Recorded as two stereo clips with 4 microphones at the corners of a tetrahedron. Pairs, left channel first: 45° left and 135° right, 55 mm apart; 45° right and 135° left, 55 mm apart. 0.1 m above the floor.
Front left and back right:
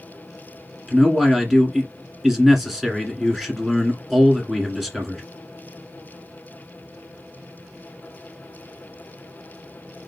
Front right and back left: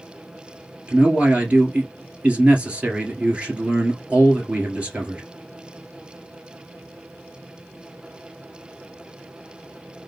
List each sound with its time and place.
0.9 s a man speaking: 150° left, 1.7 m